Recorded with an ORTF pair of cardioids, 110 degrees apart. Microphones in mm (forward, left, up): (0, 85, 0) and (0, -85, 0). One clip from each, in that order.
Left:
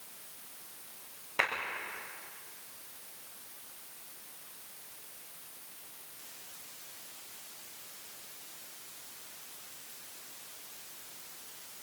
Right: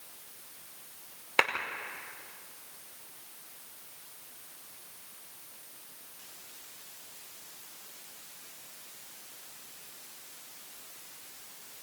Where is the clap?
55° right, 5 m.